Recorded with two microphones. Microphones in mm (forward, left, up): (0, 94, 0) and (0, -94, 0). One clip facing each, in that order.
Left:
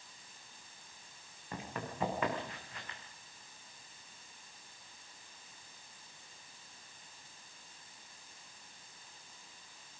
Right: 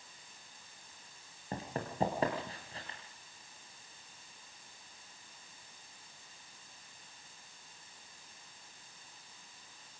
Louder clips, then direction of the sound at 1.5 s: Right 3 dB; 35° right (ahead or behind).